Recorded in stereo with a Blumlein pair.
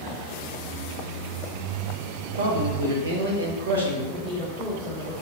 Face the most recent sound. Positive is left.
turn(degrees=-15)